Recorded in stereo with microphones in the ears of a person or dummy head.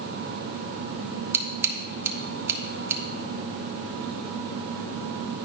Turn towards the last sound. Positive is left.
turn(degrees=-15)  # may be behind; listen again after turning